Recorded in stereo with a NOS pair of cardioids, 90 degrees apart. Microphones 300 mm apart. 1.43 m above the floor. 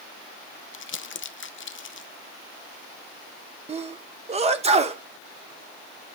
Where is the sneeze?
20° right, 1.4 m.